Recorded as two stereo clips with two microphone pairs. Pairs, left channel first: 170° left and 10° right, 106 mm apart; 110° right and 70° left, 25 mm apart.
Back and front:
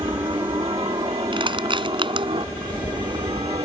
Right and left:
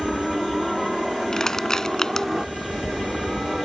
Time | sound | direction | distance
0.0 | a helicopter | 20° right | ?
1.3 | crushing | 45° right | ?